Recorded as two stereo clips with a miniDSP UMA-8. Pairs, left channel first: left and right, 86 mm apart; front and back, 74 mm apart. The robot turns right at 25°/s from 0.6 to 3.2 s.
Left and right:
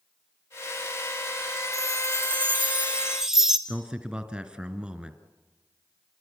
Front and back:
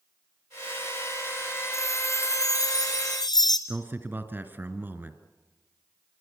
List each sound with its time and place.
1.7 s a chime: 45° right, 2 m; by 3.6 s 5° right, 2 m
3.7 s a man speaking: 160° right, 1.4 m